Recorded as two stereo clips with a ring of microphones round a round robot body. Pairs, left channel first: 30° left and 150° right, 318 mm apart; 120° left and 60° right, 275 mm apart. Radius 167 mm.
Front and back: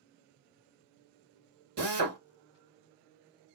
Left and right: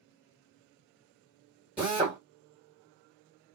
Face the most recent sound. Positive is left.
turn(degrees=-145)